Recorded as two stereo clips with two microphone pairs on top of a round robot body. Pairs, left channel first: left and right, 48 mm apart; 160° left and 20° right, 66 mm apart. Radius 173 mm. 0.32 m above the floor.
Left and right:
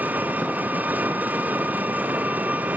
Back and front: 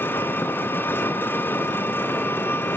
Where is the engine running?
140° right, 1.2 m.